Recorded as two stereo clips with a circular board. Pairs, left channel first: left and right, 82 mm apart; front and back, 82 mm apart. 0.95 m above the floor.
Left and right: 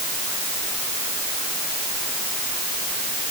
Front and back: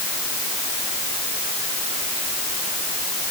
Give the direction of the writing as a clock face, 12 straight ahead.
I don't hear writing.